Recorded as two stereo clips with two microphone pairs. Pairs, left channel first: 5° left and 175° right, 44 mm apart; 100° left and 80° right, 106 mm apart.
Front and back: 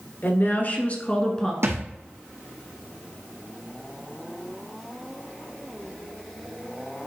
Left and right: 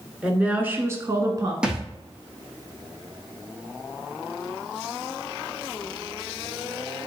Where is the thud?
160° right, 1.2 m.